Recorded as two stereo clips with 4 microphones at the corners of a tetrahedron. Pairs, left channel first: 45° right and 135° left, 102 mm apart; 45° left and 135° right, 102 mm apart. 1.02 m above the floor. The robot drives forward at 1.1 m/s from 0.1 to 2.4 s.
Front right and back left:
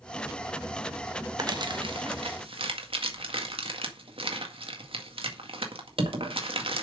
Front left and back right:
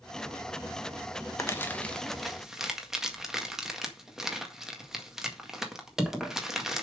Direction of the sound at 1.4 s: 100° left.